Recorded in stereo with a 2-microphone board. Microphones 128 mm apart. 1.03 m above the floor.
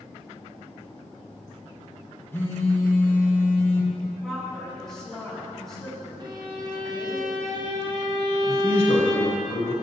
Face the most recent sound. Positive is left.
turn(degrees=65)  # may be behind; listen again after turning